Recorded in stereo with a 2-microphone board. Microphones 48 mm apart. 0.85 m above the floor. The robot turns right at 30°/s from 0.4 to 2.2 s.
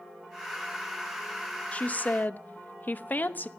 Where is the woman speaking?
25° left (ahead or behind), 0.8 m; by 3.5 s 40° left (ahead or behind), 0.8 m.